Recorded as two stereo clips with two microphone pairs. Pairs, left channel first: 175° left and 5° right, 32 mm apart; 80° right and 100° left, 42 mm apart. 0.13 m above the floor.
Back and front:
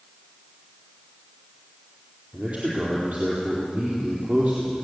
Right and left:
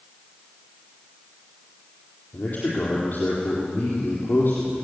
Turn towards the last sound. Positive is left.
turn(degrees=-40)